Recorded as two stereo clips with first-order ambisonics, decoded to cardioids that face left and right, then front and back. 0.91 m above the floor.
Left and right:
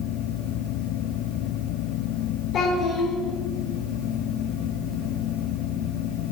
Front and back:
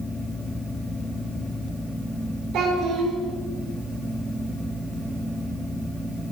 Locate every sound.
2.5 s a child speaking: 130° left, 1.5 m